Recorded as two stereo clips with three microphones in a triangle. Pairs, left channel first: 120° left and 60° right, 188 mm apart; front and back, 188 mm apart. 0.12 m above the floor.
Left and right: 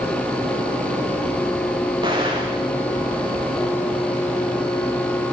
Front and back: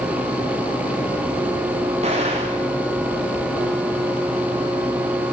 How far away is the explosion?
About 4.5 m.